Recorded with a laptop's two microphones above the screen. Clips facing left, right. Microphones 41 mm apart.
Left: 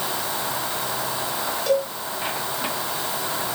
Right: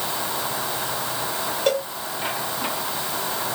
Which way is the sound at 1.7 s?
55° right (ahead or behind).